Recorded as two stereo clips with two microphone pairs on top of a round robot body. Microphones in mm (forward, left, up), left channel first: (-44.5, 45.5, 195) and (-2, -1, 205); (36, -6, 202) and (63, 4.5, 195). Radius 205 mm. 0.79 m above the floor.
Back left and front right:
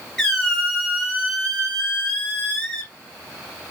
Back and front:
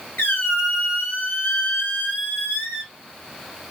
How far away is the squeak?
About 0.9 m.